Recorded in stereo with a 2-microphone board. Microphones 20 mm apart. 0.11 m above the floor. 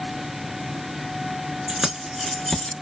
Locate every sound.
1.7 s keys jangling: 25° right (ahead or behind), 0.8 m; by 2.7 s 30° left (ahead or behind), 0.9 m